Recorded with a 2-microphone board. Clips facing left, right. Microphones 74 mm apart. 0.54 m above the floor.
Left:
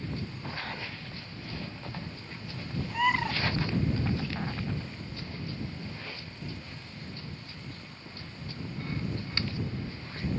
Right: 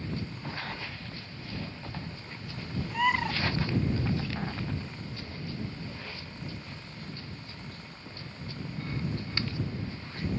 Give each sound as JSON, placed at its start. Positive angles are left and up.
{"t": 2.9, "sound": "a bird", "side_deg": 0}